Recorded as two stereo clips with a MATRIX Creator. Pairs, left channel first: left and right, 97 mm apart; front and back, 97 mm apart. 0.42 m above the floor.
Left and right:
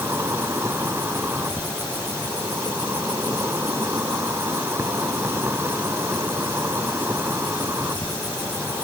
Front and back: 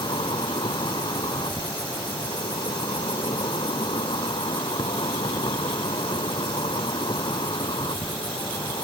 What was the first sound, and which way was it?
An insect, 25° right.